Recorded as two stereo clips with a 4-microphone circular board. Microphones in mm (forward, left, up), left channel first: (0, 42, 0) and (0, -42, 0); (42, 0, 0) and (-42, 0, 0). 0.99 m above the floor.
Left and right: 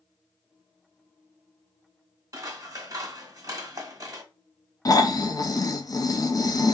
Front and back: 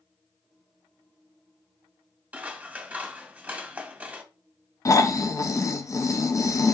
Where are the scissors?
115° right, 0.9 m.